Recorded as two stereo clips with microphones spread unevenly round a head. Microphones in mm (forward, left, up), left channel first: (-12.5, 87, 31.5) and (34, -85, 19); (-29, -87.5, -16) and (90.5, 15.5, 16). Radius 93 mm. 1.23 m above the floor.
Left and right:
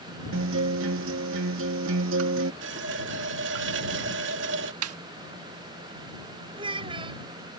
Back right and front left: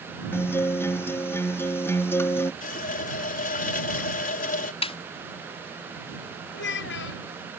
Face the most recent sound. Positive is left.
turn(degrees=-140)